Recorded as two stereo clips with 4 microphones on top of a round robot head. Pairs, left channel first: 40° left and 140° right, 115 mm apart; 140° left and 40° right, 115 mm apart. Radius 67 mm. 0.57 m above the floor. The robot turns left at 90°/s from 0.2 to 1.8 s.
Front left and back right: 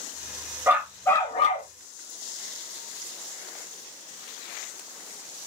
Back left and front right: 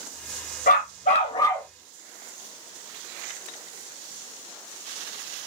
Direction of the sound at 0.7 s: 150° left.